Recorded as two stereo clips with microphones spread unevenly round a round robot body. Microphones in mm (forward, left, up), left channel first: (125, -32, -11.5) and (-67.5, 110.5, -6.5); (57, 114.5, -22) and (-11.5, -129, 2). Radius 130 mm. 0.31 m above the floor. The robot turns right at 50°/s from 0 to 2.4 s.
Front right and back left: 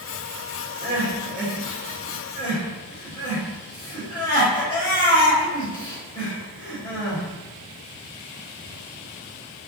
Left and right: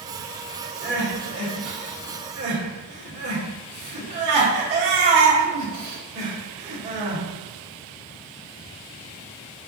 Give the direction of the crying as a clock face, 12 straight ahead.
5 o'clock.